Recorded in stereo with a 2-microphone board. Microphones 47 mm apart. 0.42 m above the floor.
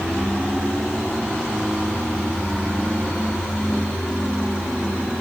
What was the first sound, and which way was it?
Only background noise.